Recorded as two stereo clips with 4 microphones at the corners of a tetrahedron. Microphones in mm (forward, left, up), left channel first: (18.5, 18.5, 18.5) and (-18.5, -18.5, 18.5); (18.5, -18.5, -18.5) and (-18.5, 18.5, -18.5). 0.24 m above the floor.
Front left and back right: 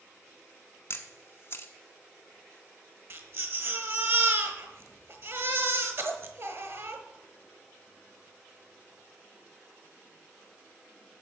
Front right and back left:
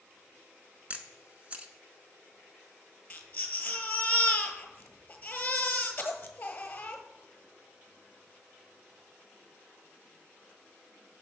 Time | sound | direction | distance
0.9 | a camera shutter | 75° left | 0.9 m
3.1 | a baby crying | 105° right | 1.3 m